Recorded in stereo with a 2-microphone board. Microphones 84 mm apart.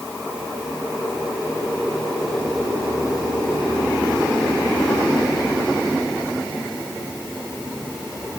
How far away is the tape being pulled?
No tape being pulled in this recording.